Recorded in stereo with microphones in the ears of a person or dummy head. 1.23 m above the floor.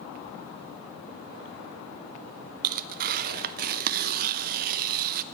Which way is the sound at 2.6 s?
55° right (ahead or behind).